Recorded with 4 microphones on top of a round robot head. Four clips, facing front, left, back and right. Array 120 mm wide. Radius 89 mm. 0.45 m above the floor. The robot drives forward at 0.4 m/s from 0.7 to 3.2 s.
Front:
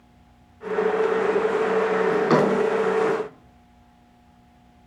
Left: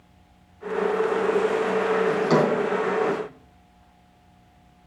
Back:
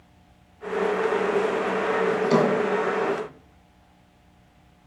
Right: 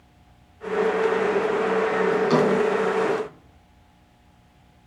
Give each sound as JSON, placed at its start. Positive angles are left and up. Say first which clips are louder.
{"t": 2.1, "sound": "a drawer", "louder": "right 2 dB, even", "azimuth_deg": 15, "distance_m": 5.0}